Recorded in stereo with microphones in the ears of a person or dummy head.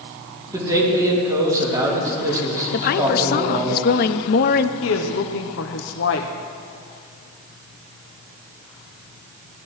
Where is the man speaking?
20° right (ahead or behind), 3.5 m.